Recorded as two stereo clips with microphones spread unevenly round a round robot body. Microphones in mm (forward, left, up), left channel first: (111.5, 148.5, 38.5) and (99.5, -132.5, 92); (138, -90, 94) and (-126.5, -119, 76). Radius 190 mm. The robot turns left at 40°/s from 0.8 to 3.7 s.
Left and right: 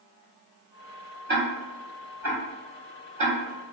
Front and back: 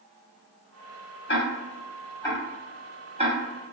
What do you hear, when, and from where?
1.3 s ticking: 30° right, 1.7 m; by 3.7 s 130° right, 1.7 m